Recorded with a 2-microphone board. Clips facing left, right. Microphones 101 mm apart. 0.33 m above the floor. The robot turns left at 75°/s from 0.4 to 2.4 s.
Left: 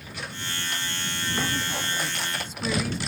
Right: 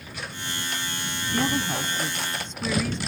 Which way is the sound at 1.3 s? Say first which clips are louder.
Right 5 dB; 110° right.